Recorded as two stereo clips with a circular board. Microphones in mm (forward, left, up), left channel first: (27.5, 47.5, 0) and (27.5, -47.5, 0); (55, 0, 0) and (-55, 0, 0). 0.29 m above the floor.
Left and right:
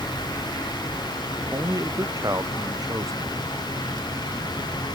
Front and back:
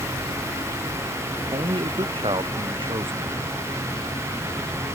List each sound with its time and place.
1.5 s a man speaking: 145° right